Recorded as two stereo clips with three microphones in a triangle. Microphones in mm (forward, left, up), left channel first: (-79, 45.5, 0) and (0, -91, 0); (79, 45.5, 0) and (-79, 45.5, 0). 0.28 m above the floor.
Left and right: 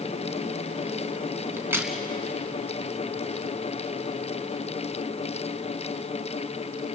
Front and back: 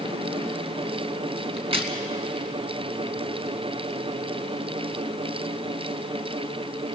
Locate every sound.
1.6 s a crack: 135° right, 2 m